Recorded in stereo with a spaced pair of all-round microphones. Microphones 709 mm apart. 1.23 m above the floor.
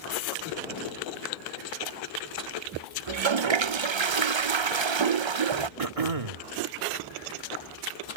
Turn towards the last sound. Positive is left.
turn(degrees=-55)  # may be behind; listen again after turning